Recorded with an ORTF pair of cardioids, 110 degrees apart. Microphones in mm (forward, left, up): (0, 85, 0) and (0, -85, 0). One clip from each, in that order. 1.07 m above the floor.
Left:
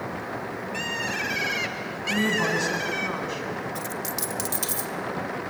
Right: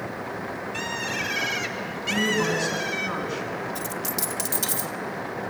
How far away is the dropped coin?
About 1.6 m.